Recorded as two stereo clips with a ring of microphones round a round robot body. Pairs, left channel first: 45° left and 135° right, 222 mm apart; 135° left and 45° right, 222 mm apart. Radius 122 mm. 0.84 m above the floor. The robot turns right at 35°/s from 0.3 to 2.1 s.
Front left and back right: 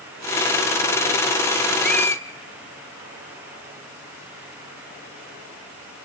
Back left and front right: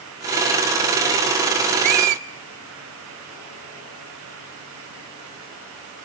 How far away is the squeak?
About 1.0 m.